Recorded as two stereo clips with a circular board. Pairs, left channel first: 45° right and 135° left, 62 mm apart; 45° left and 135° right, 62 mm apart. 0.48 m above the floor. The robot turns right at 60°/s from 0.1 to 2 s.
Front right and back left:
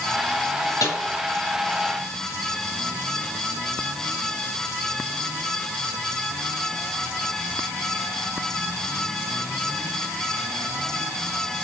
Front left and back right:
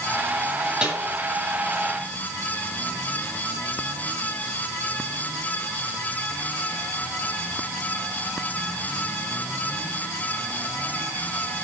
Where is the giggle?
I don't hear a giggle.